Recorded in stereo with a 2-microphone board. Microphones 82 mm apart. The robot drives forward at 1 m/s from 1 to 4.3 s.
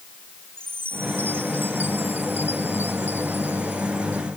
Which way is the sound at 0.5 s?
30° right (ahead or behind).